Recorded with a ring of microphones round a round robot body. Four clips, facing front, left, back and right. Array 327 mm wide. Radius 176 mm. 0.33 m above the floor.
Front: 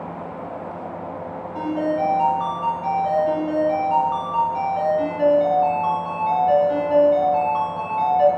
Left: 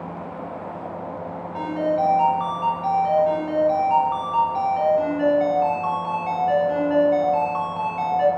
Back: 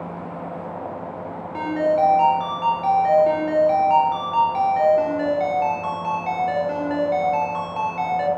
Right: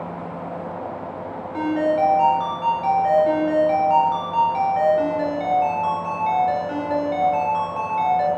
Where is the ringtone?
140° right, 1.6 m.